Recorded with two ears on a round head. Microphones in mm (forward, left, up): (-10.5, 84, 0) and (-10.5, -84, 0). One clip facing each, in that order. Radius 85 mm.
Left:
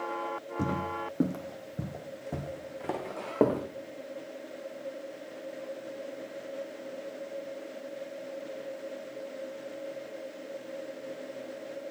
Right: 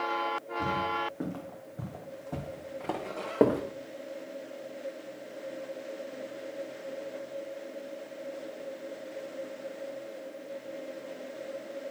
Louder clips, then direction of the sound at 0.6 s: Even; 60° left (ahead or behind).